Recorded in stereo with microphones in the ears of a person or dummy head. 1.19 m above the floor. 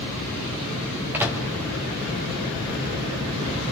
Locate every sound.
1.1 s a microwave: 10° right (ahead or behind), 1.7 m